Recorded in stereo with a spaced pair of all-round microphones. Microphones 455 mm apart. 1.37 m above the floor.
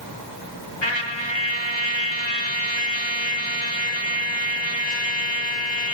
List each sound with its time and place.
0.8 s a trumpet: 65° left (ahead or behind), 1.5 m